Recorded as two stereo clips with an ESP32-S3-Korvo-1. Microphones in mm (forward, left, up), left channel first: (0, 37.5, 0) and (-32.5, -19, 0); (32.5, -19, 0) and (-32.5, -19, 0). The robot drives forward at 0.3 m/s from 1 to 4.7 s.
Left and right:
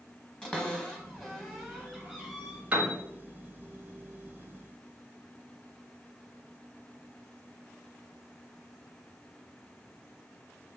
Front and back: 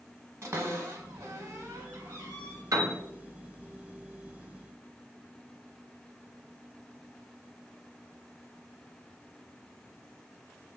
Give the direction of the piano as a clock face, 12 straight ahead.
6 o'clock.